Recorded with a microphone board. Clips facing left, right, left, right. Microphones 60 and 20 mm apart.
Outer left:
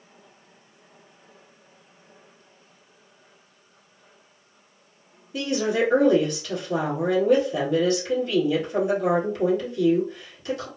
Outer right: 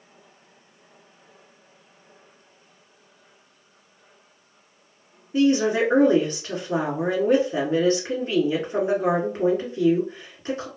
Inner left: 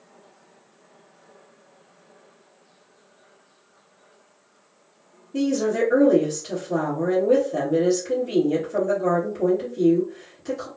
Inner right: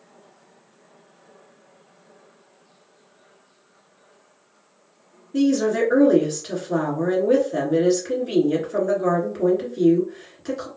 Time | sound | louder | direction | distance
5.3 | a woman speaking | outer right 4 dB, inner right 3 dB | 40° right (ahead or behind) | 1.7 m